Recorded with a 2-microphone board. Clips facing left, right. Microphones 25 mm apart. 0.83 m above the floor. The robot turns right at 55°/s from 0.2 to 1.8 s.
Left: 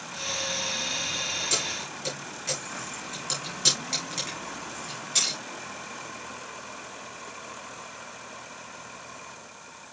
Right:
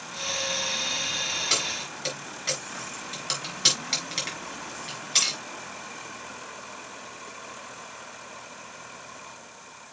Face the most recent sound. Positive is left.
turn(degrees=-45)  # may be behind; listen again after turning